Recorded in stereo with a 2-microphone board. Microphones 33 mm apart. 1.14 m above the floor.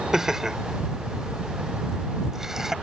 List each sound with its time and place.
0.1 s laughter: 15° right (ahead or behind)